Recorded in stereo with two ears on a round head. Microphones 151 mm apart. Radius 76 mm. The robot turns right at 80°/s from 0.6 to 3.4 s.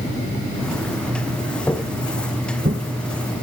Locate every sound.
1.7 s footsteps: 10° left (ahead or behind), 2.5 m; by 2.8 s 45° right (ahead or behind), 2.5 m